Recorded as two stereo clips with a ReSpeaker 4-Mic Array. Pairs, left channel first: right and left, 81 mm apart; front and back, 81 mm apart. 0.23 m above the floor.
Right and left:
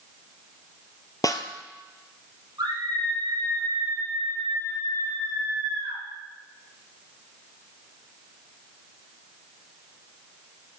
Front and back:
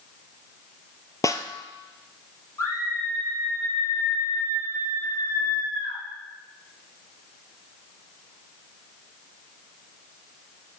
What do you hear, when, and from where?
1.2 s a snare drum: 45° right, 1.1 m
2.6 s a scream: 55° left, 8 m